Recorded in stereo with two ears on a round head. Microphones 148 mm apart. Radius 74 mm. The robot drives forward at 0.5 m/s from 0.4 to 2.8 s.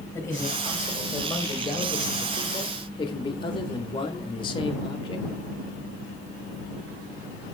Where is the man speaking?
20° left (ahead or behind), 2.5 m; by 5.3 s 30° left (ahead or behind), 1.6 m.